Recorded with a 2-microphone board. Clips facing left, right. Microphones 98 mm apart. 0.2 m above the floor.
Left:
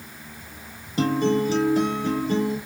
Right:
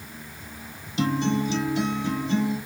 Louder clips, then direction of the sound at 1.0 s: Left 3 dB; 40° left (ahead or behind).